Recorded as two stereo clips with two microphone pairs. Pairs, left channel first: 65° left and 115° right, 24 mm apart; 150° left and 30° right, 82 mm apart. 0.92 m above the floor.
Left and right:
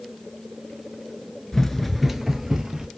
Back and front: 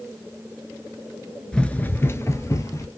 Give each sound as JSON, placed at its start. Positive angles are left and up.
{"t": 1.5, "sound": "running footsteps", "azimuth_deg": 90, "distance_m": 0.9}